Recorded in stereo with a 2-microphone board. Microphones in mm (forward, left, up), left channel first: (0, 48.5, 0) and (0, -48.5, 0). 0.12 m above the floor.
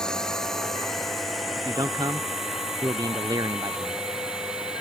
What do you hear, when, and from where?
0.0 s a drone: 5° left (ahead or behind); by 4.8 s 5° right (ahead or behind)
1.6 s a man speaking: 45° right (ahead or behind)